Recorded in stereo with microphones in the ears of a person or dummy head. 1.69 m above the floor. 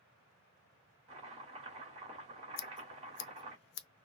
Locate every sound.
1.1 s chopping: 20° right (ahead or behind), 1.4 m
2.6 s scissors: 60° left (ahead or behind), 0.6 m